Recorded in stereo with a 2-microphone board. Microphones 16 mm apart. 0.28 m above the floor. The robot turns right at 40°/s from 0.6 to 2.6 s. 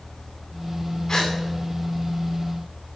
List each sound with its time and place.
1.1 s a gasp: 55° left (ahead or behind), 10 m; by 1.3 s 65° left (ahead or behind), 10 m